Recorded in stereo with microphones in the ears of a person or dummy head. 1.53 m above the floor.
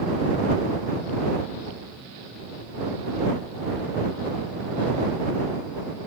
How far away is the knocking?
I don't hear knocking.